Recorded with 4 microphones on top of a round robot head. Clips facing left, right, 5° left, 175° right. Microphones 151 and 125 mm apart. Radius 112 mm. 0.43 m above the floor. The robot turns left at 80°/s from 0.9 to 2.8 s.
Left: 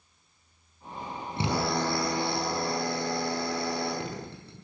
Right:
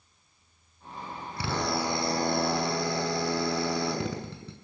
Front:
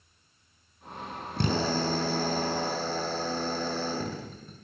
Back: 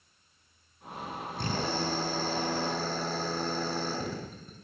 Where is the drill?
25° left, 6 m; by 4.5 s 90° right, 6 m.